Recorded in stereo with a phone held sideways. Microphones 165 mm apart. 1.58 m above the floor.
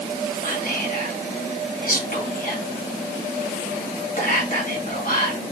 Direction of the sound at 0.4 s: 60° left (ahead or behind).